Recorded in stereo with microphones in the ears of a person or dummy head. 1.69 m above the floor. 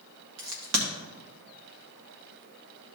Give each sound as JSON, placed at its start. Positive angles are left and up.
{"t": 0.4, "sound": "a crack", "side_deg": -65, "distance_m": 1.9}